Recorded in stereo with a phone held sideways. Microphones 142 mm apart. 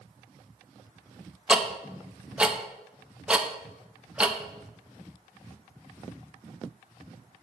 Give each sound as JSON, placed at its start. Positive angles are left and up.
{"t": 1.5, "sound": "ticking", "side_deg": -5, "distance_m": 0.7}